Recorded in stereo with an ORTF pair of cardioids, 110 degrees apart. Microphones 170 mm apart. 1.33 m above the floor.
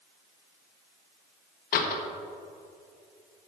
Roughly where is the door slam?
Ahead left.